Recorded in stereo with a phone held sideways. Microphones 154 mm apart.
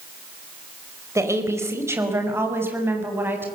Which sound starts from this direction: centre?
A woman speaking, at 1.1 s.